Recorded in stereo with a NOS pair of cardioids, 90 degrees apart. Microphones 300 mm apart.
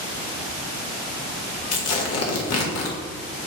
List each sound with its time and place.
1.7 s tearing paper: 55° left, 1.4 m